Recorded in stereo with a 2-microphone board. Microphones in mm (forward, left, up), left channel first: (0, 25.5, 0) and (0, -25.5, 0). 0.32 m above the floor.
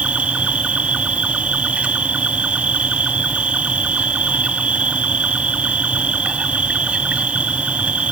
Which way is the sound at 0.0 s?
25° right (ahead or behind).